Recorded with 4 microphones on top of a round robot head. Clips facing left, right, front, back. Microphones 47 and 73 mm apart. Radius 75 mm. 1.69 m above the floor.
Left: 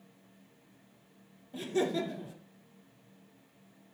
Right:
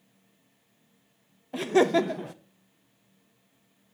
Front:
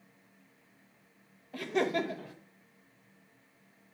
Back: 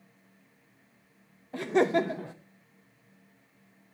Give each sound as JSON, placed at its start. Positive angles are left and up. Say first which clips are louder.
{"t": 1.5, "sound": "laughter", "louder": "right 9 dB, back 6 dB", "azimuth_deg": -115, "distance_m": 0.5}